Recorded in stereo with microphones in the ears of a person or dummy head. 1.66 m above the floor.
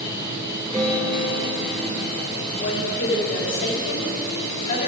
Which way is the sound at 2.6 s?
50° left (ahead or behind).